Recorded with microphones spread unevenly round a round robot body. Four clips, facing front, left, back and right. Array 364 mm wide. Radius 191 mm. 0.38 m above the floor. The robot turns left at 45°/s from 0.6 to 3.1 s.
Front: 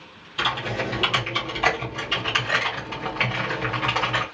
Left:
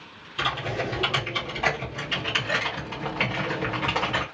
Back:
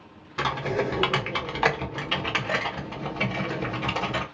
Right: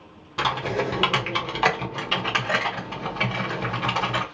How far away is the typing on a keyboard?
About 1.1 m.